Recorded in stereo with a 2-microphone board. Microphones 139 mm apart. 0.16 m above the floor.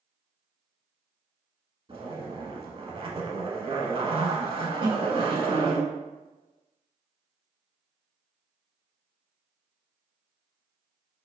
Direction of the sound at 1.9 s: 45° right (ahead or behind).